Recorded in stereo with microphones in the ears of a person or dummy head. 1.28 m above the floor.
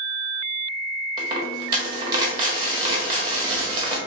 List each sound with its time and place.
1.2 s a dropped coin: 25° right (ahead or behind), 1.2 m